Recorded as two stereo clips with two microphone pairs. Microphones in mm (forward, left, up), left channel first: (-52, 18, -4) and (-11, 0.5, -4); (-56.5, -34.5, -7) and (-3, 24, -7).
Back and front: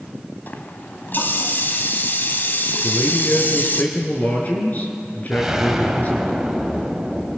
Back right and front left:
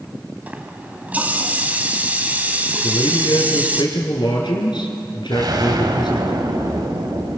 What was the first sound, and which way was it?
A running tap, 120° left.